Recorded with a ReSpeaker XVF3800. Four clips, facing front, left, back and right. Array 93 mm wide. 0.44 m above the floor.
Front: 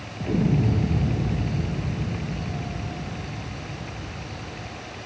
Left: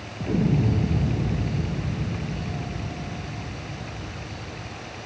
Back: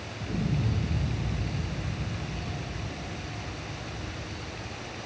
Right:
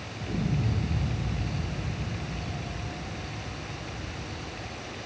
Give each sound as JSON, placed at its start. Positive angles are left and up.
{"t": 0.2, "sound": "an explosion", "azimuth_deg": 45}